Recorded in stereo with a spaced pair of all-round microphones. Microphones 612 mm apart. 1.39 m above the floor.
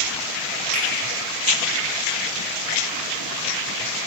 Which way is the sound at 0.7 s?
70° right (ahead or behind).